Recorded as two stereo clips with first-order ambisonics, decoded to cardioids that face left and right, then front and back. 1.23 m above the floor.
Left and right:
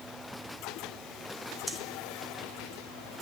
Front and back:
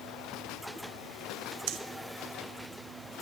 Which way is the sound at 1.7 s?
Straight behind.